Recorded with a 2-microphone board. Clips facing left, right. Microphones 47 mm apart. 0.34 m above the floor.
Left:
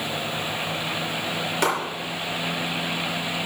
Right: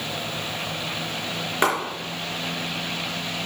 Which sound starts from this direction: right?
A clap, at 1.6 s.